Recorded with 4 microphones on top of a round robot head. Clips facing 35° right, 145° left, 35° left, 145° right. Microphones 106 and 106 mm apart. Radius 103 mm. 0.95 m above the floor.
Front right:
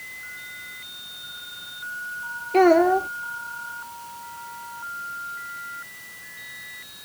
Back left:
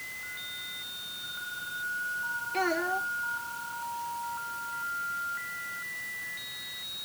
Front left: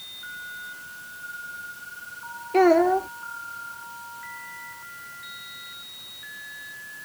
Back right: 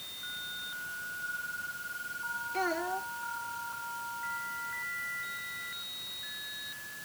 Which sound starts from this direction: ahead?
A child speaking, at 2.5 s.